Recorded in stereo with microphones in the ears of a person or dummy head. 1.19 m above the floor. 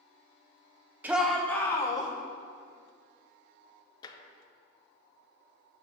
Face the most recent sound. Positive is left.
turn(degrees=25)  # may be behind; listen again after turning